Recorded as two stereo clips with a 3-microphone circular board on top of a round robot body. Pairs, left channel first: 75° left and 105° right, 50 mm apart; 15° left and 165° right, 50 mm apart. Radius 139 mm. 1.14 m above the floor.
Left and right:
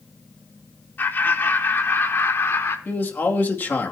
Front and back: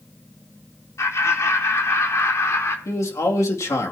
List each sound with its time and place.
1.0 s laughter: 25° left, 3 m; by 2.8 s 40° left, 3.5 m
2.9 s a man speaking: 25° left, 2.5 m